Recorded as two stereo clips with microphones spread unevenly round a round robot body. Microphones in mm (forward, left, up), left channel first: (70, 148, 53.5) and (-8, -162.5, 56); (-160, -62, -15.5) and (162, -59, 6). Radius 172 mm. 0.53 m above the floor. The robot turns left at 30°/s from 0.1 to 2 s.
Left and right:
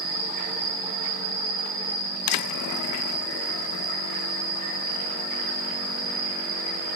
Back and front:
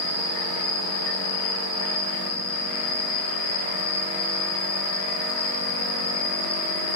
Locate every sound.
0.0 s an insect: 110° right, 7.5 m; by 7.0 s 165° right, 7.5 m